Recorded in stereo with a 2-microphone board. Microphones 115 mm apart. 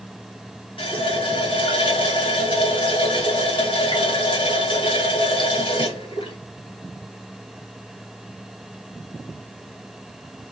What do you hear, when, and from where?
0.8 s a running tap: 45° left (ahead or behind), 1.5 m